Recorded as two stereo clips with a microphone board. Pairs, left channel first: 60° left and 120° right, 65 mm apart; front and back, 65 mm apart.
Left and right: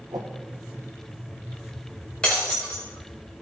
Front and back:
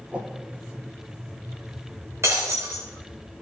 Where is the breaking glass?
135° left, 3 m.